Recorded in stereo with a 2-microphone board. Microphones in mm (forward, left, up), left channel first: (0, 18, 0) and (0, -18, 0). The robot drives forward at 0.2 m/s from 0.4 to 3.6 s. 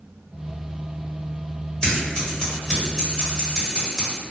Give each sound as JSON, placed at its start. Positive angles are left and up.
{"t": 1.8, "sound": "scissors", "side_deg": 20, "distance_m": 1.3}